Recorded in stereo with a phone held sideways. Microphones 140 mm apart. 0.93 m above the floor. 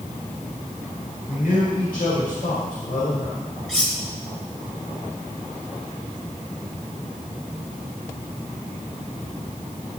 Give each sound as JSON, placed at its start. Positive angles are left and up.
{"t": 1.3, "sound": "a man speaking", "side_deg": 80, "distance_m": 4.0}
{"t": 3.7, "sound": "cutlery clinking", "side_deg": 5, "distance_m": 2.5}